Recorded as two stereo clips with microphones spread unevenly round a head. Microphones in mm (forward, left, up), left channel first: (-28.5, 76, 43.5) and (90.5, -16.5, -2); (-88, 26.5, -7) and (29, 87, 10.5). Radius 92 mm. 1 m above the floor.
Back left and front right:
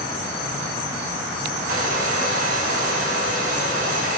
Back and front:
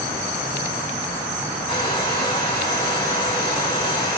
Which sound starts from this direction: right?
A hair dryer, at 1.7 s.